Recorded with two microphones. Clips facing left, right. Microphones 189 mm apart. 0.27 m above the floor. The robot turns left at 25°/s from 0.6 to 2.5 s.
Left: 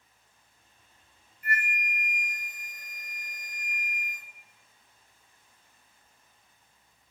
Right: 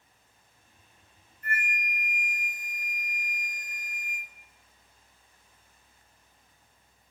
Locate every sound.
1.4 s a flute: 15° left (ahead or behind), 0.6 m; by 4.3 s 15° right (ahead or behind), 0.6 m